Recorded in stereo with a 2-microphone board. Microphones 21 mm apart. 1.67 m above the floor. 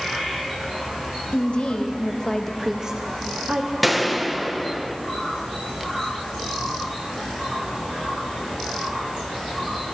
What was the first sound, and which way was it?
A woman speaking, 60° left (ahead or behind).